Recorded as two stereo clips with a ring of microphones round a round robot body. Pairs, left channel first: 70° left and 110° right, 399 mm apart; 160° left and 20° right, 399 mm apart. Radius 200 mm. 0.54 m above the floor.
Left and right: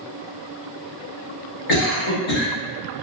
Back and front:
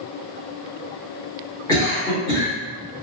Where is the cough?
80° left, 1.6 m.